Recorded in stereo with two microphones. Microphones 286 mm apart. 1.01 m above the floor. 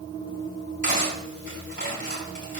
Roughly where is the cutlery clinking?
Left.